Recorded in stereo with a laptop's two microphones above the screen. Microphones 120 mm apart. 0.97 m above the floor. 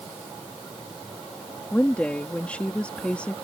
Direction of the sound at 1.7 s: 10° left (ahead or behind).